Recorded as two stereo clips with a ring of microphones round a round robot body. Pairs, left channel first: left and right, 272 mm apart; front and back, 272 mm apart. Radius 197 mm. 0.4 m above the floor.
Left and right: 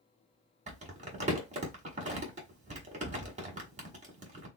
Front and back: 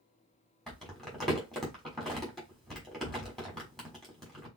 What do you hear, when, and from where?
0.7 s crumpling: 85° right, 1.4 m